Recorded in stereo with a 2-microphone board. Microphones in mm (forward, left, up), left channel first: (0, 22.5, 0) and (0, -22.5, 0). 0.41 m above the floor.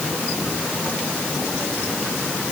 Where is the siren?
I don't hear a siren.